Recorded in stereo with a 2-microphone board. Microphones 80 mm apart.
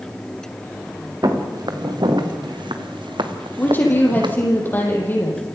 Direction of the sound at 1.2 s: 55° right (ahead or behind).